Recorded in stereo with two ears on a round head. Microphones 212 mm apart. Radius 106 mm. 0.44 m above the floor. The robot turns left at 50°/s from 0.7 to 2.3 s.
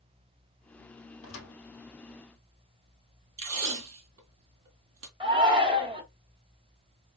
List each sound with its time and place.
1.2 s a thud: 60° left (ahead or behind), 2.5 m; by 1.5 s 45° left (ahead or behind), 2.5 m
3.4 s tape being pulled: 60° right (ahead or behind), 2.5 m
5.2 s a shout: 20° right (ahead or behind), 1.1 m